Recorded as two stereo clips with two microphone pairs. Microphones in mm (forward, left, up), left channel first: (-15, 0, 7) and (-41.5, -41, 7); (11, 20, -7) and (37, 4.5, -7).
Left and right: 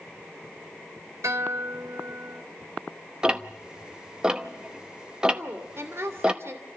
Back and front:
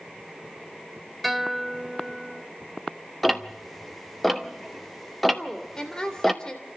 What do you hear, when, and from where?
1.2 s a guitar: 120° right, 1.7 m
3.2 s ticking: 140° right, 1.0 m
5.3 s a woman speaking: 145° right, 2.5 m